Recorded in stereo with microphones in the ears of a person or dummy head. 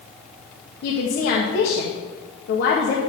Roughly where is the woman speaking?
Left.